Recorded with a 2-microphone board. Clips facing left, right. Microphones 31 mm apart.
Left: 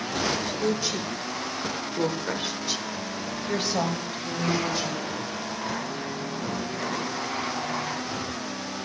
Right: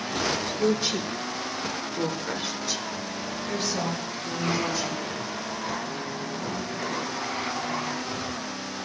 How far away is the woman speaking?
About 1.1 m.